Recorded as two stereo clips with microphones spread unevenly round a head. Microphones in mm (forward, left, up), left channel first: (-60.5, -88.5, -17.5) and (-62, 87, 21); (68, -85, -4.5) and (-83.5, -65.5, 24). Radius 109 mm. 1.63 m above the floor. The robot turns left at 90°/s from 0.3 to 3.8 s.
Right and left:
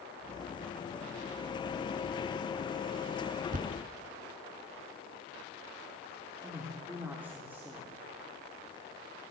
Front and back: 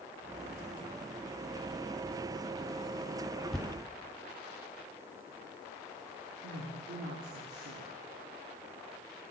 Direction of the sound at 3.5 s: 90° left.